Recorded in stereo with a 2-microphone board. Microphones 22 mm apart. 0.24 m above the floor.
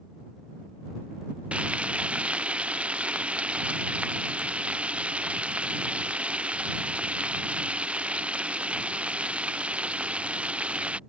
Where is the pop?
I don't hear a pop.